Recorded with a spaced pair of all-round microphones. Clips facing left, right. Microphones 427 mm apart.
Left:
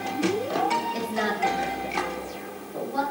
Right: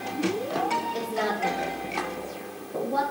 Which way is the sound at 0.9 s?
45° left (ahead or behind).